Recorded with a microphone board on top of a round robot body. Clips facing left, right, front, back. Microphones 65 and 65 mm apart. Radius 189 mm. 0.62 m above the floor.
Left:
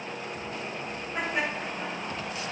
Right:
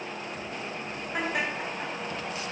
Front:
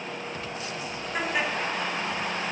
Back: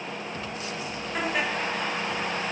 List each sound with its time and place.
1.1 s laughter: 85° right, 3.5 m